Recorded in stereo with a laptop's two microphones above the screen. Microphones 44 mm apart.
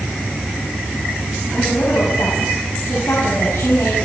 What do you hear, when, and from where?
1.5 s a woman speaking: 75° left (ahead or behind), 6.5 m